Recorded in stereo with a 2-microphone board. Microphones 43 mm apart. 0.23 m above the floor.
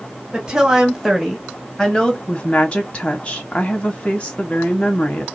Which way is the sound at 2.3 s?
25° left (ahead or behind).